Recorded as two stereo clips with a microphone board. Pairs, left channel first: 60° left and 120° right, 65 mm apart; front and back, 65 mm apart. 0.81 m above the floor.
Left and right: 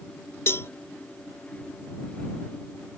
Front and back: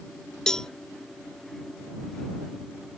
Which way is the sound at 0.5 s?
75° left.